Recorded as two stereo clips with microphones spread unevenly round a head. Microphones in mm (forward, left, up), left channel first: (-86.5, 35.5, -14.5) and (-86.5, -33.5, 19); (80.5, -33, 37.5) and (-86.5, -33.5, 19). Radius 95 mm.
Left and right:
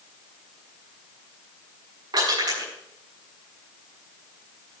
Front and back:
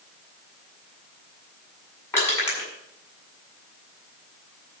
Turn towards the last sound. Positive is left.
turn(degrees=-75)